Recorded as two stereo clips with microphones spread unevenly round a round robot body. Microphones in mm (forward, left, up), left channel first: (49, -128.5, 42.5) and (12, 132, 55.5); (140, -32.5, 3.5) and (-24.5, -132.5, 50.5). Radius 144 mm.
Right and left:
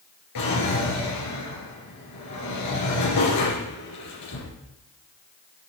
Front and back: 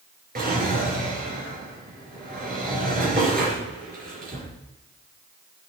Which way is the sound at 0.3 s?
110° right.